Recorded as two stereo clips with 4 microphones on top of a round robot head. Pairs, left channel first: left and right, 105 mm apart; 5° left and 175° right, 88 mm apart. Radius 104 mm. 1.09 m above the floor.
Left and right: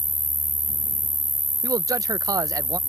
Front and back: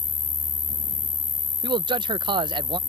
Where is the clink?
No clink in this recording.